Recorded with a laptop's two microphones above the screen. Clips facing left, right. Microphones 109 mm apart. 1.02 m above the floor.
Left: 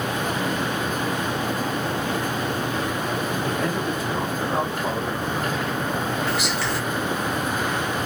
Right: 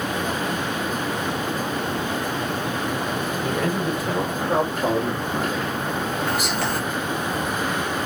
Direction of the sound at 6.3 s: 45° right (ahead or behind).